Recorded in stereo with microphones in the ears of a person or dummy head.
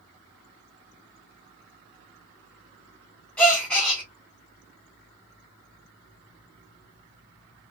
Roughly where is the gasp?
Centre.